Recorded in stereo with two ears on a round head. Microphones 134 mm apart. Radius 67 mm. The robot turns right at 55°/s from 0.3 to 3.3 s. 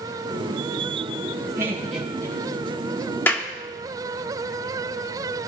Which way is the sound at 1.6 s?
20° right (ahead or behind).